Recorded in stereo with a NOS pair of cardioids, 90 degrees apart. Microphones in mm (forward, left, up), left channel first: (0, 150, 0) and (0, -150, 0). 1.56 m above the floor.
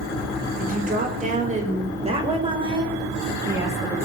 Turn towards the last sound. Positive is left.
turn(degrees=-10)